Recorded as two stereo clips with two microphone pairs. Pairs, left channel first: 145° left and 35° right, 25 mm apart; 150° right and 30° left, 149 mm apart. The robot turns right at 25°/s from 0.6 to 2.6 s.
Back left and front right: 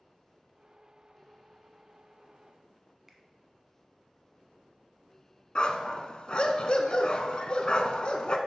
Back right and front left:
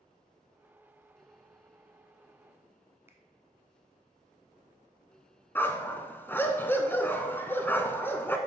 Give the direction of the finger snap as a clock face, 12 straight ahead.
12 o'clock.